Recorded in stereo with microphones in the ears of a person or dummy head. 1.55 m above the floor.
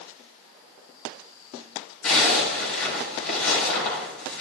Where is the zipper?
80° left, 4 m.